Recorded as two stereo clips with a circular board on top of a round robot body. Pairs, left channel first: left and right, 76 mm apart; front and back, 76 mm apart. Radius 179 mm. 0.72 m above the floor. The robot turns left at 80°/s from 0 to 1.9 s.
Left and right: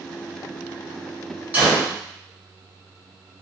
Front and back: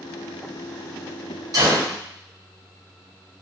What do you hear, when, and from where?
1.5 s a gunshot: 155° right, 2 m; by 1.9 s straight behind, 2 m